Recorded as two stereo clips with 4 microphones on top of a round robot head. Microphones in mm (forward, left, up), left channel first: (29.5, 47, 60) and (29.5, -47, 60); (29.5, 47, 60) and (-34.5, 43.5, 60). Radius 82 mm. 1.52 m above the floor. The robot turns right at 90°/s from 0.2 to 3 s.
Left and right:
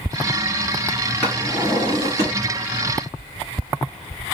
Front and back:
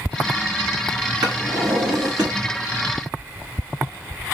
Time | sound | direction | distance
1.2 | a drawer | 175° left | 1.5 m